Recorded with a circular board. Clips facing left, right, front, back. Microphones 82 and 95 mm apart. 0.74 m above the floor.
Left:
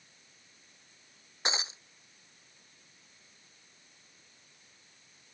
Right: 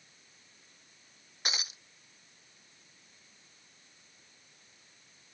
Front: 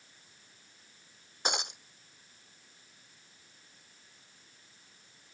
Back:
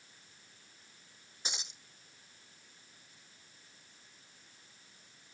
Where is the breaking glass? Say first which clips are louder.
Left 4 dB, front 12 dB; 30° left.